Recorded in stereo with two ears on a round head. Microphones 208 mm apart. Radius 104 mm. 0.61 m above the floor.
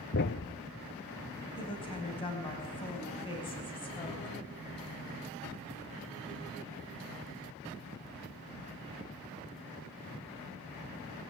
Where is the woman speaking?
25° left (ahead or behind), 4 m.